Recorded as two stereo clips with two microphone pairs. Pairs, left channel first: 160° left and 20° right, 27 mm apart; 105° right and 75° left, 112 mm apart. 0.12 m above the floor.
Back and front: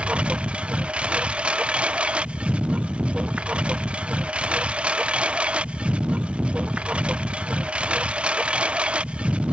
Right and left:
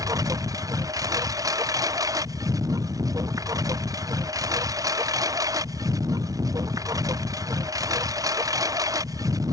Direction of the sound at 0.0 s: 20° left.